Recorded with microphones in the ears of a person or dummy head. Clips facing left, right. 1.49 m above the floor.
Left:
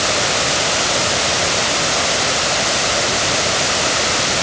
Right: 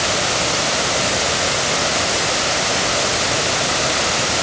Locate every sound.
Only background noise.